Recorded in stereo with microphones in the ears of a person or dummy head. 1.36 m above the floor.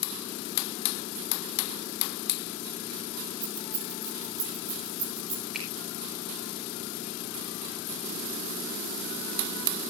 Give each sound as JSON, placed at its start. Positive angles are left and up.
{"t": 3.4, "sound": "keys jangling", "side_deg": -25, "distance_m": 8.5}
{"t": 5.5, "sound": "a finger snap", "side_deg": 0, "distance_m": 4.5}